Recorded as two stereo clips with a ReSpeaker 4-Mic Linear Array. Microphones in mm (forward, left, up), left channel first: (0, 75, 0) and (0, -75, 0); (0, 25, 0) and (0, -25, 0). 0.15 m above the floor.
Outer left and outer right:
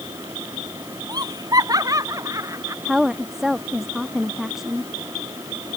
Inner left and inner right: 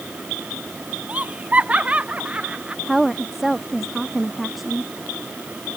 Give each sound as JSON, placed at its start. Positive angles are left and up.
{"t": 1.1, "sound": "laughter", "side_deg": -25}
{"t": 2.9, "sound": "a woman speaking", "side_deg": 0}